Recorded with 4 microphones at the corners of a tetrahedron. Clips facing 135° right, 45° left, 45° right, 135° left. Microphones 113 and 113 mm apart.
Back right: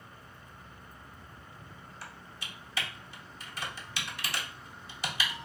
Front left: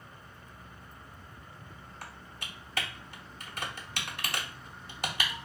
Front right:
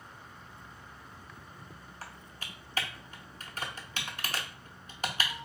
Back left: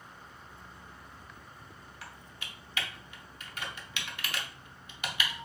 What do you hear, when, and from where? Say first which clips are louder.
2.0 s typing on a keyboard: front left 1 dB, front right 2 dB; 10° left, 0.6 m